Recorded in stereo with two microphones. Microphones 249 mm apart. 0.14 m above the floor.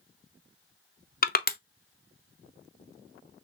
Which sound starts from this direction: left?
Crushing, at 1.2 s.